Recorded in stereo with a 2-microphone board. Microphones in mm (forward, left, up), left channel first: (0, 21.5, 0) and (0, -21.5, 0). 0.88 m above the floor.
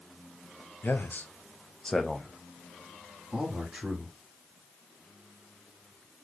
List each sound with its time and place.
0.8 s a man speaking: 60° left (ahead or behind), 0.6 m; by 4.2 s 20° right (ahead or behind), 1.6 m